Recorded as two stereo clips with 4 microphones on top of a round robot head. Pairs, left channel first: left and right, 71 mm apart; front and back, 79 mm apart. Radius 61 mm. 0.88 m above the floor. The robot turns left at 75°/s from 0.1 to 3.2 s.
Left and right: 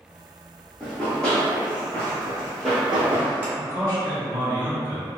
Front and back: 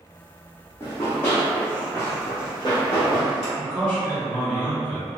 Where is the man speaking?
50° right, 1.3 m.